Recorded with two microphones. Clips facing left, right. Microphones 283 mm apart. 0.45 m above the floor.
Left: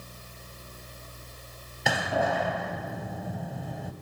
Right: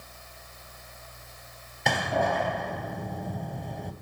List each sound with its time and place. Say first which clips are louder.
1.9 s a door slam: even; 5° left (ahead or behind), 2.5 m